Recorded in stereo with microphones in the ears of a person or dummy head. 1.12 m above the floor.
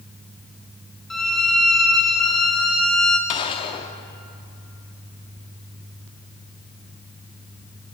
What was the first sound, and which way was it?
A violin, centre (ahead or behind).